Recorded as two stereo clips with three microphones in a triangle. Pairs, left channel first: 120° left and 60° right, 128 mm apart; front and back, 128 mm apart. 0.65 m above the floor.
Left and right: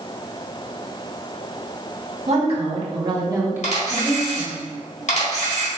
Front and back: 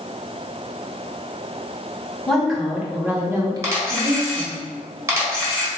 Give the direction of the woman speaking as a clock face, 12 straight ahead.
3 o'clock.